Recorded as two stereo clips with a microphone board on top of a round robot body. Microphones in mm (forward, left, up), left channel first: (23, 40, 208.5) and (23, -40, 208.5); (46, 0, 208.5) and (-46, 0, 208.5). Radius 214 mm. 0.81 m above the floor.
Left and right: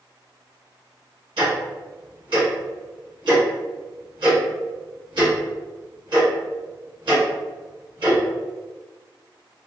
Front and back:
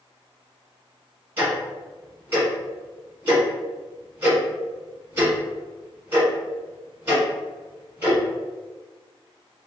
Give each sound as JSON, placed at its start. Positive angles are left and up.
{"t": 1.4, "sound": "ticking", "azimuth_deg": -110, "distance_m": 1.7}